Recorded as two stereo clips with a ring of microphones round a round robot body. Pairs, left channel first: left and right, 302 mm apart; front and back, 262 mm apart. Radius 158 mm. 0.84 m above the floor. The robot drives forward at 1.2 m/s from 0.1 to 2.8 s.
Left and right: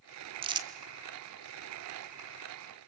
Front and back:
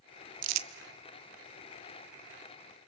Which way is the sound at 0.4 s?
160° right.